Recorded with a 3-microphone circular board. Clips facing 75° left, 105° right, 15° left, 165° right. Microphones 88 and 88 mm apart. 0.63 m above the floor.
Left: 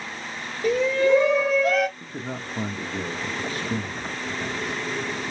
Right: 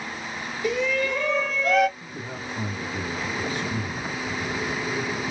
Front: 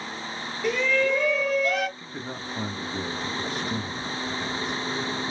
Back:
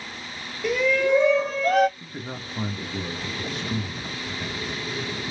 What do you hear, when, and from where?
0.6 s a shout: 110° left, 1.8 m; by 1.9 s 170° left, 1.6 m
2.0 s a man speaking: 105° left, 1.1 m